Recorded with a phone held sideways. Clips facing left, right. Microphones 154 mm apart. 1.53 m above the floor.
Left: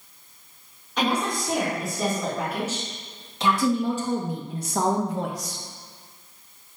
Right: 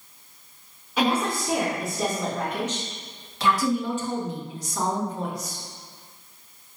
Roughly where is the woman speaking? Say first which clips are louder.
Right 1 dB; centre.